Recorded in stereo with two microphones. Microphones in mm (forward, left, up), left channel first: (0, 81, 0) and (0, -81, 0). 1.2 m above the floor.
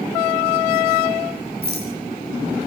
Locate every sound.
1.6 s a rattle: 85° right, 6 m